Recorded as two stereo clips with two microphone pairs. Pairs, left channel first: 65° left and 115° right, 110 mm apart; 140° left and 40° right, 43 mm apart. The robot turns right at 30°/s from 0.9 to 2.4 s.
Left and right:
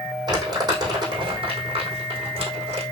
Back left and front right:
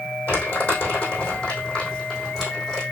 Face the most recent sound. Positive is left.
turn(degrees=-120)